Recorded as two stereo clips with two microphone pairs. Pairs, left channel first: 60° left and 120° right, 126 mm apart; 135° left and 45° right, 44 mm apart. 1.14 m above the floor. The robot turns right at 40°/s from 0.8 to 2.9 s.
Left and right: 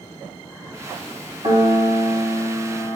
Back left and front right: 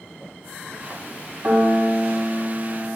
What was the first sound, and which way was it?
A piano, 80° right.